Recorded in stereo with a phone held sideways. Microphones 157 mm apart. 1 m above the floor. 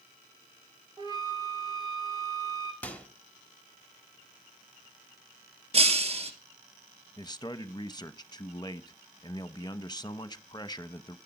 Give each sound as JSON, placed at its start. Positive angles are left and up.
{"t": 1.0, "sound": "a flute", "side_deg": -30, "distance_m": 3.0}
{"t": 2.8, "sound": "a microwave", "side_deg": 10, "distance_m": 1.6}
{"t": 5.7, "sound": "breaking glass", "side_deg": -40, "distance_m": 1.9}
{"t": 7.2, "sound": "a man speaking", "side_deg": 25, "distance_m": 0.9}